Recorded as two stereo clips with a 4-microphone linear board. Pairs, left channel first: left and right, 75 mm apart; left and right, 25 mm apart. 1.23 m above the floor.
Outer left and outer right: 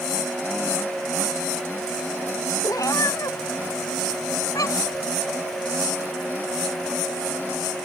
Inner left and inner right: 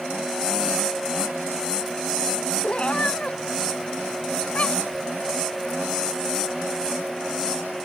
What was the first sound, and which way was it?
A cat meowing, 50° left (ahead or behind).